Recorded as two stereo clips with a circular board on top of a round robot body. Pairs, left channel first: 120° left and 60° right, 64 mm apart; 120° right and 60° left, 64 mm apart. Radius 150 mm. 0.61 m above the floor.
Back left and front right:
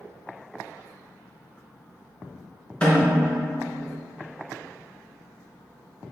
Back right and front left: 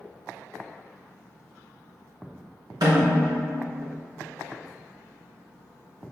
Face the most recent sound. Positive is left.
turn(degrees=50)